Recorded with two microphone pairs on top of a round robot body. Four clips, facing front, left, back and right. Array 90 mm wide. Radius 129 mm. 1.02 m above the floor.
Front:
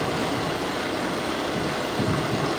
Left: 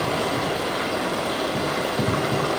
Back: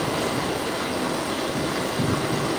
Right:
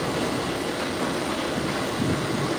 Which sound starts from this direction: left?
Running water, at 0.0 s.